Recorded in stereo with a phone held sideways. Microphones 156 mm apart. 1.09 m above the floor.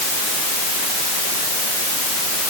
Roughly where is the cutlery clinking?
No cutlery clinking in this recording.